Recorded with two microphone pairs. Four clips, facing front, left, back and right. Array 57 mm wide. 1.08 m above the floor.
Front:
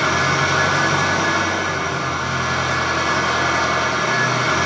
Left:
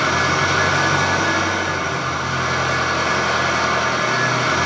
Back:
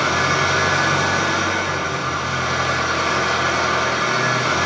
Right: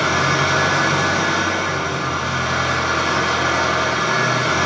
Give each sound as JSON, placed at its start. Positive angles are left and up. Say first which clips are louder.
{"t": 0.0, "sound": "an engine running", "louder": "even, even", "azimuth_deg": -55, "distance_m": 1.7}